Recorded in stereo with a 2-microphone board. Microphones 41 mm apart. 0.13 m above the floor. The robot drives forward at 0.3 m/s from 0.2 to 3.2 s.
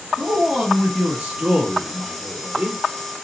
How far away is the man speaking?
About 1.4 m.